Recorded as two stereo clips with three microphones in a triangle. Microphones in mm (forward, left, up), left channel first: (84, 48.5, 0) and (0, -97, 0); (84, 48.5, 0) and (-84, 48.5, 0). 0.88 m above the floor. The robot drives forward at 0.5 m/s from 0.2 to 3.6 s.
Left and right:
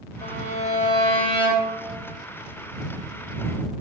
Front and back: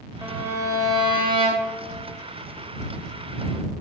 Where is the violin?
100° left, 1.6 m; by 1.8 s 125° left, 1.9 m.